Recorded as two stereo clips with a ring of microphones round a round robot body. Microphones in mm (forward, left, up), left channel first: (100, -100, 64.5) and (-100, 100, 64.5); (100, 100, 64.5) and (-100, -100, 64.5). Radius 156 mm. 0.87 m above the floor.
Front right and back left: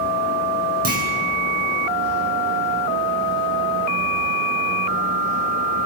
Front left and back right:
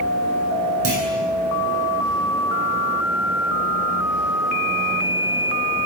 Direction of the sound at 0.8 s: 165° right.